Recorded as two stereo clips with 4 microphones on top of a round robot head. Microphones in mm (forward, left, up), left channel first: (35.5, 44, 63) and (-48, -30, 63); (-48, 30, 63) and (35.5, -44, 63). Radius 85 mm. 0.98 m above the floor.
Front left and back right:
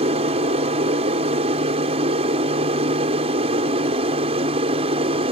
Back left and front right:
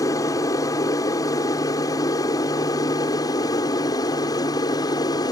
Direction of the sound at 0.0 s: 165° right.